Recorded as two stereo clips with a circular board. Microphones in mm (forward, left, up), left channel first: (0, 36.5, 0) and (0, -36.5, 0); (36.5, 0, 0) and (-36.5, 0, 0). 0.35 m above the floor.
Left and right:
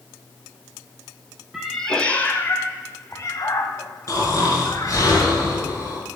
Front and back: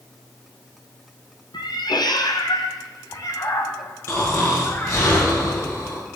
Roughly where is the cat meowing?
Ahead.